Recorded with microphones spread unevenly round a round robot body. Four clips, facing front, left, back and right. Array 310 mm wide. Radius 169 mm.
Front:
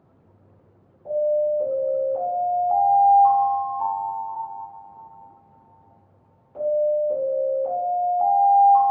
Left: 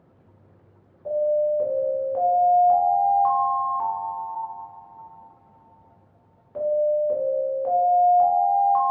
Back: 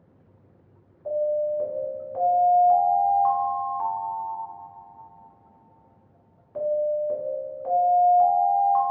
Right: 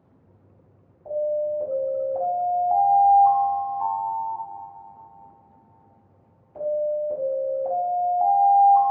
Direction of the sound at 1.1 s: 105° left.